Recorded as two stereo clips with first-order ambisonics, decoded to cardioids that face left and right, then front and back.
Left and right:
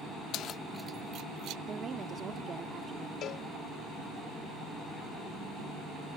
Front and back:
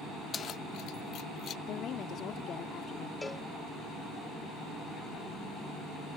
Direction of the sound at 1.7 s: 35° right.